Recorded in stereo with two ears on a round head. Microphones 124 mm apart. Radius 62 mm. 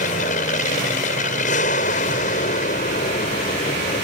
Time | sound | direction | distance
0.0 | an aircraft | 60° left (ahead or behind) | ?